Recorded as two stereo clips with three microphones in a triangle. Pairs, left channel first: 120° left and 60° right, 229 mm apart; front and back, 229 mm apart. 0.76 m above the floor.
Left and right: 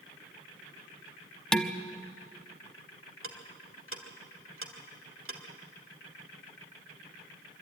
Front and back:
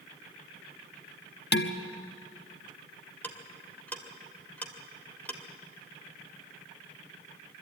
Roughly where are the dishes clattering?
Ahead left.